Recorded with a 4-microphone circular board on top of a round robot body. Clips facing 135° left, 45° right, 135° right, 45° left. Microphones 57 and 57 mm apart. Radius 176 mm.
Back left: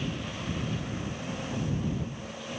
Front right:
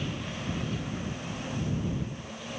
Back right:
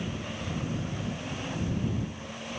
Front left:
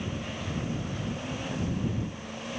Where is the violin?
I don't hear a violin.